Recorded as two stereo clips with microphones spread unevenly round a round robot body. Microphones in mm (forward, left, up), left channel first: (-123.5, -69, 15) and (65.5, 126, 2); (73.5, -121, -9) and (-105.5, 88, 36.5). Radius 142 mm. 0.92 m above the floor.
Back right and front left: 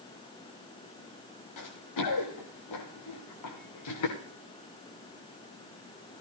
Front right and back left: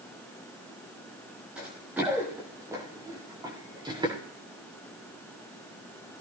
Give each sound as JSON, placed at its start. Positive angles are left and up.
{"t": 1.6, "sound": "running footsteps", "azimuth_deg": -145, "distance_m": 6.5}